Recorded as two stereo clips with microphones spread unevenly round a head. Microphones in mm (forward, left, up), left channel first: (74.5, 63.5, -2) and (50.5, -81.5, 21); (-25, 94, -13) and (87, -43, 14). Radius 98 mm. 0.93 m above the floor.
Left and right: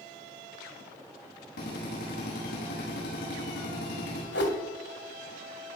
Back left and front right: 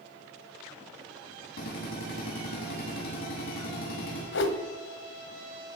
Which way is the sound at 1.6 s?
95° left.